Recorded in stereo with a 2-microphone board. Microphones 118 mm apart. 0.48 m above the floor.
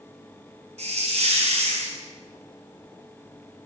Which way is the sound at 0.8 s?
70° right (ahead or behind).